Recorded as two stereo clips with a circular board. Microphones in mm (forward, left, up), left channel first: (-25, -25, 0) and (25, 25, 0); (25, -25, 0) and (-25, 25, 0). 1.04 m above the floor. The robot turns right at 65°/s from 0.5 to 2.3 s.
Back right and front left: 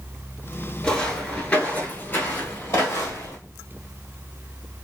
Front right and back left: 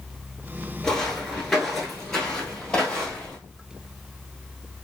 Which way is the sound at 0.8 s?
95° right.